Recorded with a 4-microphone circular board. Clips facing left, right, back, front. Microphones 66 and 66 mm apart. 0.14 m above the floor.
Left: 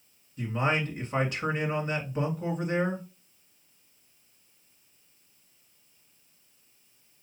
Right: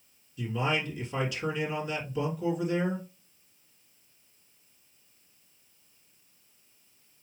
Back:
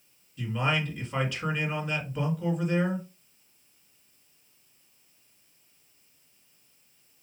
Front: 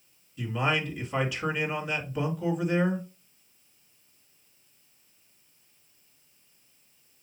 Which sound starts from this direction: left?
A man speaking, at 0.4 s.